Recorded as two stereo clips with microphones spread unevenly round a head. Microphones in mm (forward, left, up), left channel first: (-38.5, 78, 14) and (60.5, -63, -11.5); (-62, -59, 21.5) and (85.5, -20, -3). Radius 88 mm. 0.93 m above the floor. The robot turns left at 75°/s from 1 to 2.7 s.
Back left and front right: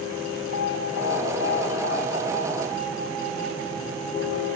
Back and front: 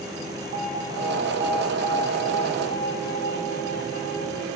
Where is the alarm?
15° right, 10 m; by 4.5 s 140° right, 10 m.